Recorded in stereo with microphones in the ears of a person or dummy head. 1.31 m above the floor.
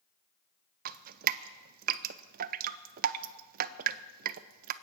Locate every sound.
0.8 s dripping: 50° right (ahead or behind), 0.5 m